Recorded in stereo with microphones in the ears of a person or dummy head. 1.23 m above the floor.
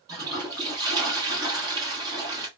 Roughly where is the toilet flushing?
Right.